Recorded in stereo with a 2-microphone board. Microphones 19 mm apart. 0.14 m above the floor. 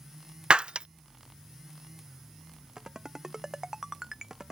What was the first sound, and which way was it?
Breaking glass, 60° right (ahead or behind).